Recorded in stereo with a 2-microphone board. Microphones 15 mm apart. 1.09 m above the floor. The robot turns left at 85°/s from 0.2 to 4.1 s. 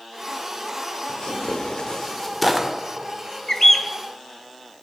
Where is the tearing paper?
60° left (ahead or behind), 1.7 m; by 2.7 s 20° right (ahead or behind), 1.7 m.